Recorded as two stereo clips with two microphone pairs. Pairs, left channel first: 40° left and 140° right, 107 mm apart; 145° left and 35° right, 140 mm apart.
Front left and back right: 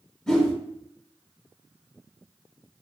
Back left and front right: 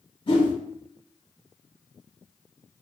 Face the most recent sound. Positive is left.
turn(degrees=120)